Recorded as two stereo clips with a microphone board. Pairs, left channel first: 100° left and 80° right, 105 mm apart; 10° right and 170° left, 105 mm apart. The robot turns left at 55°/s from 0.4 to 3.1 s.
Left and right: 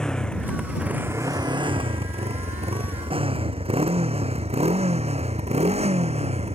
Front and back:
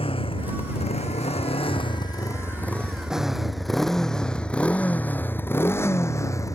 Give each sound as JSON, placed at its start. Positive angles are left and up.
{"t": 0.0, "sound": "a motorcycle", "azimuth_deg": 15}